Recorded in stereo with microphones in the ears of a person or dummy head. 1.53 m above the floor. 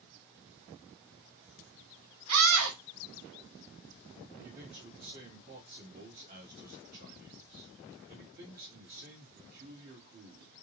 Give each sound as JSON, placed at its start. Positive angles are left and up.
{"t": 2.3, "sound": "a scream", "side_deg": -85, "distance_m": 1.6}
{"t": 4.4, "sound": "a man speaking", "side_deg": -50, "distance_m": 1.8}